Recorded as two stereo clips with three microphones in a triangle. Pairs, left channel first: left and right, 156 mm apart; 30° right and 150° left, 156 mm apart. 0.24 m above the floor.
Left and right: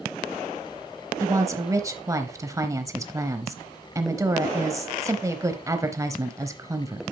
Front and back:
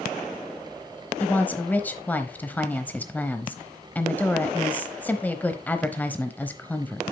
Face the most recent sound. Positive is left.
turn(degrees=-90)